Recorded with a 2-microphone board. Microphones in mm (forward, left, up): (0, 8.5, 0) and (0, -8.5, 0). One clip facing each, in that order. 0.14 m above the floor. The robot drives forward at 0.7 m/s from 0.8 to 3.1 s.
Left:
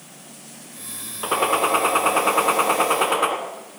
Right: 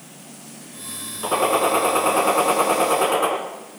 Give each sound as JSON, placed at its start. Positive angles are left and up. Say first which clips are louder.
{"t": 1.2, "sound": "a gunshot", "louder": "right 1 dB", "side_deg": 15, "distance_m": 2.0}